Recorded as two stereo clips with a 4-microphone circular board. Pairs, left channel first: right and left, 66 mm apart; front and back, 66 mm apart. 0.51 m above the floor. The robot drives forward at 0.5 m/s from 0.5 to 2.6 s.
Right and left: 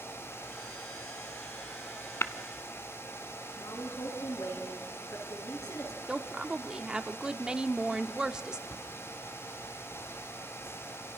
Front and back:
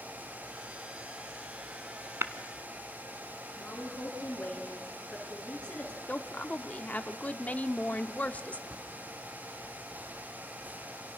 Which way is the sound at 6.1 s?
25° left.